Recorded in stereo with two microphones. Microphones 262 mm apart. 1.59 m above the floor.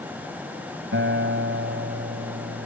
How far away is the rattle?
I don't hear a rattle.